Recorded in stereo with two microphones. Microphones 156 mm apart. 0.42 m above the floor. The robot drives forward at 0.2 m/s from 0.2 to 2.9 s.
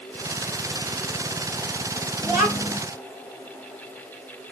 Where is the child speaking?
10° right (ahead or behind), 0.9 m.